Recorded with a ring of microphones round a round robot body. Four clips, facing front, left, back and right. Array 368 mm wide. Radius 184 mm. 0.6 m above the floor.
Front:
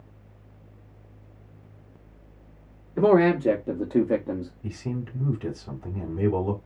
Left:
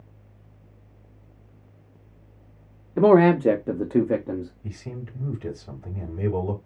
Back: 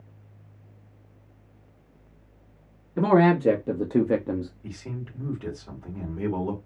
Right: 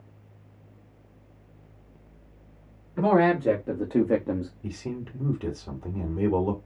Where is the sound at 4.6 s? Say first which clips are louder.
Right 3 dB, front 5 dB; 65° right, 2.5 m.